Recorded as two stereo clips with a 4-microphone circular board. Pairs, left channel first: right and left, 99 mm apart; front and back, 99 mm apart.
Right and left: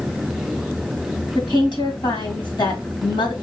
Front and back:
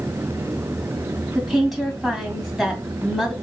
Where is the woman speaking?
90° right, 1.8 m.